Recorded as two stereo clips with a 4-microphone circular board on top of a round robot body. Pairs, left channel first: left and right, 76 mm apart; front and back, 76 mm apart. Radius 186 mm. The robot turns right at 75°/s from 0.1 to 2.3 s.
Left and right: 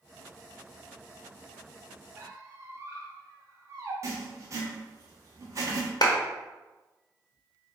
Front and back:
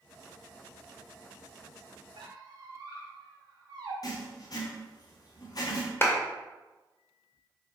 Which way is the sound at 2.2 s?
155° right.